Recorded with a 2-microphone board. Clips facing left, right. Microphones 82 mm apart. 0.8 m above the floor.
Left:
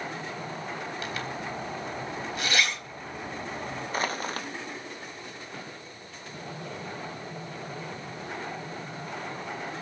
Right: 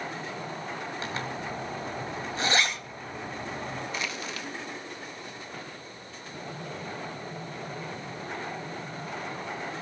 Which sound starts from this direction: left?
Crushing, at 3.9 s.